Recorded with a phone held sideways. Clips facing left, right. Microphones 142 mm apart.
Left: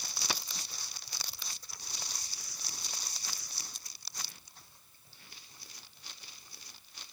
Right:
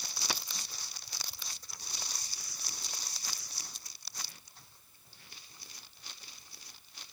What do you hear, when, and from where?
Only background noise.